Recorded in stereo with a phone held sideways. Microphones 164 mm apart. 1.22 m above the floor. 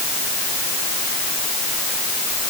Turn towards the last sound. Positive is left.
No sound to turn to.